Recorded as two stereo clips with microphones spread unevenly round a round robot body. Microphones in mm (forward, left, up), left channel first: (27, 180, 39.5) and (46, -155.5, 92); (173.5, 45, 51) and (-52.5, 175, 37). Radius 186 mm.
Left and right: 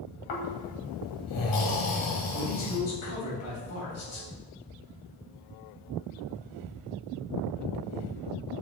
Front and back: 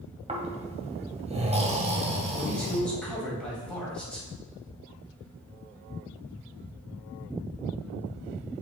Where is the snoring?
85° left, 1.8 m.